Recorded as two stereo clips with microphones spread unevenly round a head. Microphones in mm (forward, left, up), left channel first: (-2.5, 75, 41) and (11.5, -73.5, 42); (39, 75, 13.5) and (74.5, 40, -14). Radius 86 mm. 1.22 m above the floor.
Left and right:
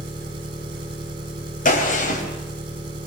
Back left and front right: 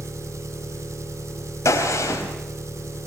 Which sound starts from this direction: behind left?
A gunshot, at 1.6 s.